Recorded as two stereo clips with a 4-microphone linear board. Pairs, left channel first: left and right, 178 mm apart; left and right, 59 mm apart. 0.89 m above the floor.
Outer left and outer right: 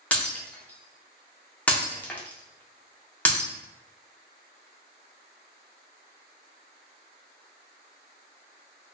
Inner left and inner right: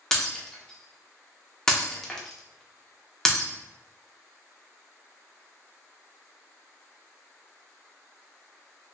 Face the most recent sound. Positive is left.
turn(degrees=10)  # may be behind; listen again after turning